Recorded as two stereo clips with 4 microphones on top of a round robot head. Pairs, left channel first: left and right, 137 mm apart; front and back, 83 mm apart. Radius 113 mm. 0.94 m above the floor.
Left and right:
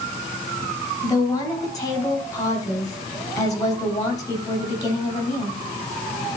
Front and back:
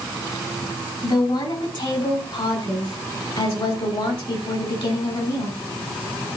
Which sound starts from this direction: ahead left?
A woman speaking, at 1.0 s.